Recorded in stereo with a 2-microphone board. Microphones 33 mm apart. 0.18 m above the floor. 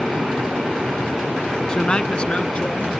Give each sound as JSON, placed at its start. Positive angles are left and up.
{"t": 1.7, "sound": "a man speaking", "side_deg": 25}